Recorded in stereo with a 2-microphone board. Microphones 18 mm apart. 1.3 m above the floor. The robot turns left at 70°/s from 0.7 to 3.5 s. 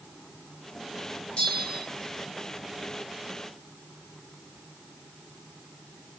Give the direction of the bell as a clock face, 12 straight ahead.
9 o'clock.